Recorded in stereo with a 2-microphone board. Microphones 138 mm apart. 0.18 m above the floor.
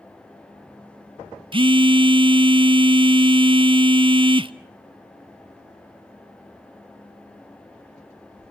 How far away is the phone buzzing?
About 0.6 m.